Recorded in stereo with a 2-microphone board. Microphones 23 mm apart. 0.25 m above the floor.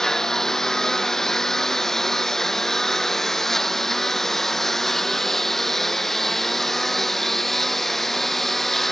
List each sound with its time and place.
0.0 s a lawn mower: 25° left (ahead or behind); by 8.9 s 15° left (ahead or behind)